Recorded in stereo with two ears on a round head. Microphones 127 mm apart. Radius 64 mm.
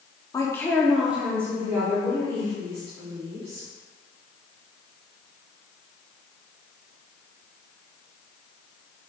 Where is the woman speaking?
25° left (ahead or behind), 0.7 m; by 3.7 s 40° right (ahead or behind), 1.9 m.